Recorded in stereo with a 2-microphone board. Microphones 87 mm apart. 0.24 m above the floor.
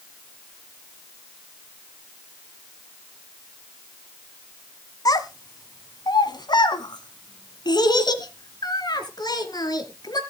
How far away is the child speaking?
About 1.6 m.